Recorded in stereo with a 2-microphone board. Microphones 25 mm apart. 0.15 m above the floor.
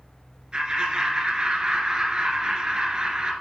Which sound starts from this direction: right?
Laughter, at 0.5 s.